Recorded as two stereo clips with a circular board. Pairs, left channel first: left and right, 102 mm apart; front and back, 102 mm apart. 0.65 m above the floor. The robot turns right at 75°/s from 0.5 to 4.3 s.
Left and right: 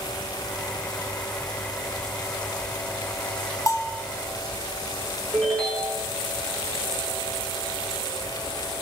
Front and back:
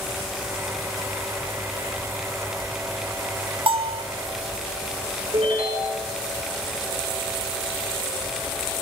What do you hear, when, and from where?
3.7 s a bell: 145° left, 1.1 m; by 4.0 s 175° left, 1.1 m
5.3 s a ringtone: 170° left, 5.5 m